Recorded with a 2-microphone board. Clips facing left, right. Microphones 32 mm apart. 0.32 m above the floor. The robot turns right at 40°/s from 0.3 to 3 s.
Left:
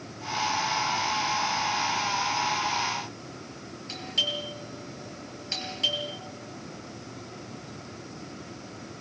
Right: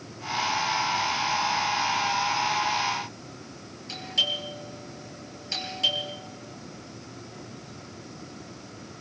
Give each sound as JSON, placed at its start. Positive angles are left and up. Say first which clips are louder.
{"t": 3.9, "sound": "a doorbell", "louder": "right 2 dB", "side_deg": 0, "distance_m": 9.0}